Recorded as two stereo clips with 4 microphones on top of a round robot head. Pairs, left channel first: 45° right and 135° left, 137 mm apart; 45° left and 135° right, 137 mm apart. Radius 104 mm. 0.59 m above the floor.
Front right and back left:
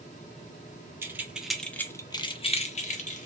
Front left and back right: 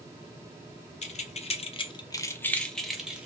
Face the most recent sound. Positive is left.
turn(degrees=-55)